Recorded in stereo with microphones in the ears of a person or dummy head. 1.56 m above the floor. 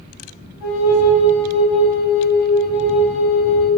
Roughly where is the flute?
Left.